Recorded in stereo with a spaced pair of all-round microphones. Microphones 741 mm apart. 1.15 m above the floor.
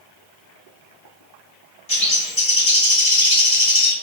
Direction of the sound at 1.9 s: 40° left (ahead or behind).